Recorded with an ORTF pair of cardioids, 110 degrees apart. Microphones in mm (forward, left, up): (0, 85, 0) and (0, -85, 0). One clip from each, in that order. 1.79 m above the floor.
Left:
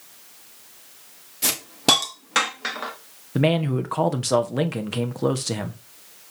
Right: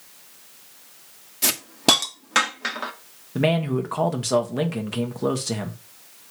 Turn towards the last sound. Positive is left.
turn(degrees=20)